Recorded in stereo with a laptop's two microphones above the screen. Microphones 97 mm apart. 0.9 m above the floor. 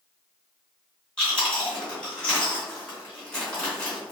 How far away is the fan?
I don't hear a fan.